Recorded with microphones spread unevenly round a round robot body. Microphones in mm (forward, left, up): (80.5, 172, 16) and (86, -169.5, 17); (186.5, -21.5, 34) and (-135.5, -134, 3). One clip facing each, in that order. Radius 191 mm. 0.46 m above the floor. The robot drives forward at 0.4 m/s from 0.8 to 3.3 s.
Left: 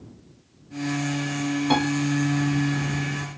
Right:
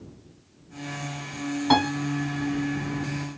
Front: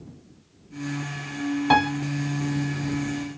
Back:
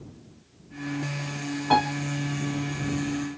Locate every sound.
1.7 s a piano: 10° right, 0.9 m; by 1.9 s 15° right, 0.8 m